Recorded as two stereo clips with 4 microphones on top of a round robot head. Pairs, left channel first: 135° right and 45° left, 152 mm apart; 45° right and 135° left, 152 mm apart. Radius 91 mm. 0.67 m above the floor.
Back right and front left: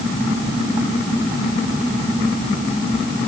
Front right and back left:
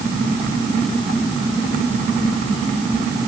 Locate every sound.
Only background noise.